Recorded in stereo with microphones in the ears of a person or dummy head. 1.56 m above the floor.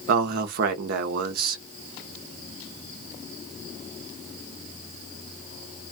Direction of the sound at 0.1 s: 60° right (ahead or behind).